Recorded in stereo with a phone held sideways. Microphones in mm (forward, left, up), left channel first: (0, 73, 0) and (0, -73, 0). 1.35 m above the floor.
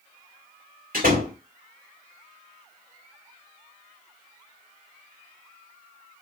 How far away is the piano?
No piano in this recording.